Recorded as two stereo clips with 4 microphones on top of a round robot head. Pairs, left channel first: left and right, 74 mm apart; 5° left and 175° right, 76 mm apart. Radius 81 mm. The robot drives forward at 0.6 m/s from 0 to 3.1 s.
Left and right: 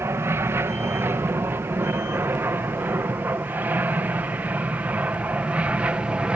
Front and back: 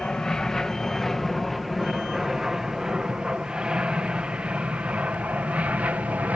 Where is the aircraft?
70° right; by 6.4 s 140° right.